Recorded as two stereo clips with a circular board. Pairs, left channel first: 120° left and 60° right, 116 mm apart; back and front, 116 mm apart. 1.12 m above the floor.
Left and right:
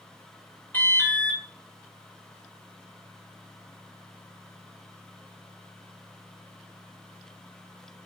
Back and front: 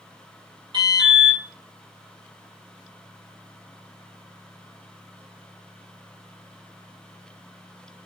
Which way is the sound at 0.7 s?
45° left.